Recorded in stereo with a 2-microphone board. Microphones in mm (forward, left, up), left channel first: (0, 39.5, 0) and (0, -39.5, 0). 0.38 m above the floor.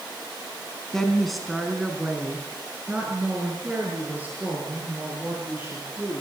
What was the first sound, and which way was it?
A woman speaking, 5° left (ahead or behind).